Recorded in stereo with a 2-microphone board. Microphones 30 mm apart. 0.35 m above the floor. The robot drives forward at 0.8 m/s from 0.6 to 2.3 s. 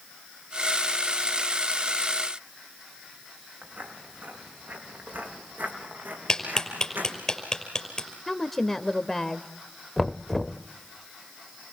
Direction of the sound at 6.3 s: 15° left (ahead or behind).